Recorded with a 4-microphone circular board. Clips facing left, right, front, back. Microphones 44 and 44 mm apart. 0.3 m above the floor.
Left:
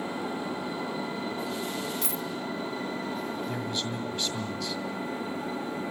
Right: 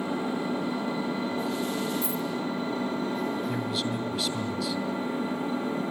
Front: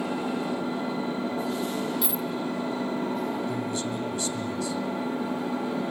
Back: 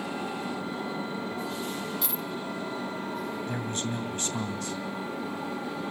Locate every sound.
0.0 s an engine running: 35° right, 8 m
2.0 s a dropped coin: 85° left, 1.1 m
3.5 s a man speaking: 175° right, 1.7 m